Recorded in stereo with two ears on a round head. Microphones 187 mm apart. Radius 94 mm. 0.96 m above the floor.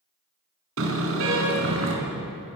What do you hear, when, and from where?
0.8 s a car horn: 70° right (ahead or behind), 5.5 m